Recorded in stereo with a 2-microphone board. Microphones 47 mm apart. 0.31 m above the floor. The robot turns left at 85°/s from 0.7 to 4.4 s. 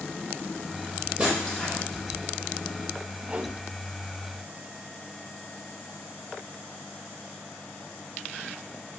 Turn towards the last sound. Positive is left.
turn(degrees=-125)